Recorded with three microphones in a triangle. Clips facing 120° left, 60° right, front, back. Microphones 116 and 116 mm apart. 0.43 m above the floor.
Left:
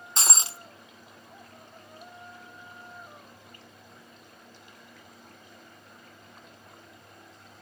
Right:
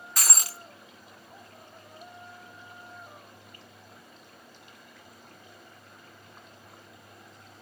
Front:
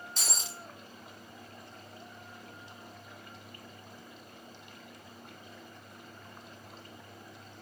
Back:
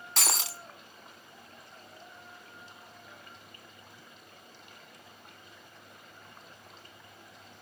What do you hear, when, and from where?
0.2 s breaking glass: 175° right, 1.1 m